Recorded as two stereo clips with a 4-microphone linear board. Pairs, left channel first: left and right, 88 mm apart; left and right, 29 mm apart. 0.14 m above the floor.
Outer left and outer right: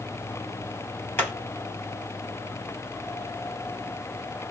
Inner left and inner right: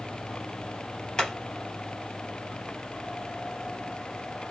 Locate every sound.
1.2 s hammering: 25° left (ahead or behind), 3 m